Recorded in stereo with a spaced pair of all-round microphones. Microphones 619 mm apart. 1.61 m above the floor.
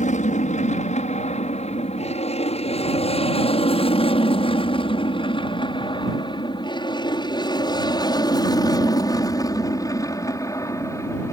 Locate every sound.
0.0 s an aircraft: 10° left (ahead or behind); by 11.3 s 5° left (ahead or behind)